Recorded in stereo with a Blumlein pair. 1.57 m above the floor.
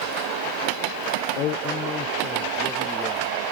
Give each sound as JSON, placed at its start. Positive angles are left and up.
{"t": 1.4, "sound": "a man speaking", "azimuth_deg": 40}